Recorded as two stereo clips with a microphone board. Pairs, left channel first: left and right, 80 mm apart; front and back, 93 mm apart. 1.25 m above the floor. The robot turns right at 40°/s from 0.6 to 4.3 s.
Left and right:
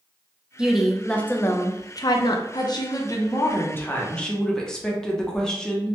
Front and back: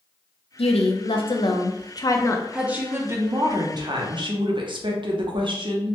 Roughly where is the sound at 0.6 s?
Ahead.